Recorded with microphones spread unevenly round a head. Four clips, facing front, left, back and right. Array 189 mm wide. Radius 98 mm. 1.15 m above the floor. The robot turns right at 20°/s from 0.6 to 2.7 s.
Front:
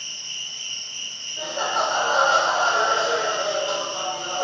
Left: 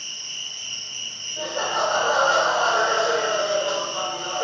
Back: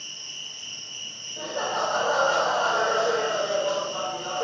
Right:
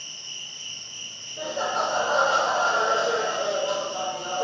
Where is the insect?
135° left, 2.0 m; by 4.4 s straight behind, 2.0 m.